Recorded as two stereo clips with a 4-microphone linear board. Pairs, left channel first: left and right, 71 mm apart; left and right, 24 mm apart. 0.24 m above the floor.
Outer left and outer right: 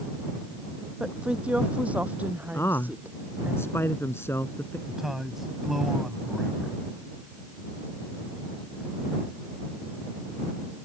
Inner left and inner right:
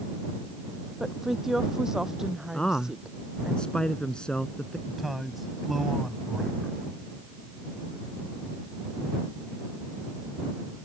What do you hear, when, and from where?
1.0 s a woman speaking: 15° right (ahead or behind); by 3.5 s 30° right (ahead or behind)
2.5 s a man speaking: 35° left (ahead or behind)
4.9 s a man speaking: 5° right (ahead or behind)